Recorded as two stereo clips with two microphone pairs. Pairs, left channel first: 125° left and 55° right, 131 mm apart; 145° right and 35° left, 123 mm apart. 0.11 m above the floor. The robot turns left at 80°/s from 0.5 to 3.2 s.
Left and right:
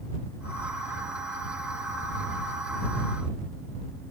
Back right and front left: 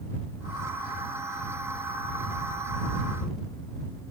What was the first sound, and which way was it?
Only background noise.